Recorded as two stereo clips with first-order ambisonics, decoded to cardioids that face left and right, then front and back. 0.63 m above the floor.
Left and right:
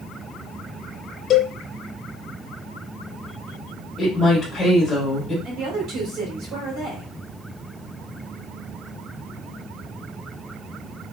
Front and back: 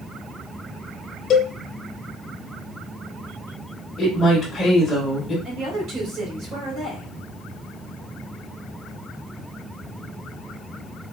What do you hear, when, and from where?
1.3 s a cowbell: 35° left, 0.6 m
4.0 s a woman speaking: 25° left, 1.1 m
5.5 s a woman speaking: 130° right, 2 m